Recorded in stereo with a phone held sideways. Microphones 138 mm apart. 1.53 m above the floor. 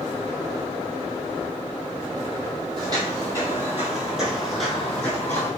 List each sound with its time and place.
2.8 s footsteps: 30° right (ahead or behind), 2 m; by 5.5 s 15° left (ahead or behind), 2 m